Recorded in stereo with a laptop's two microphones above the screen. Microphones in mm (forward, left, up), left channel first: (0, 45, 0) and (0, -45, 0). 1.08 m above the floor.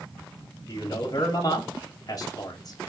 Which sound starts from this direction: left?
A man speaking, at 0.7 s.